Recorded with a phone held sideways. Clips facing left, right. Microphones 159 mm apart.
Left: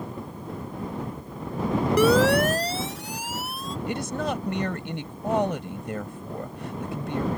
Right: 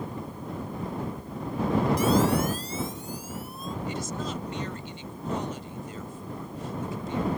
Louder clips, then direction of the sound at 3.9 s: Left 7 dB; 65° left (ahead or behind).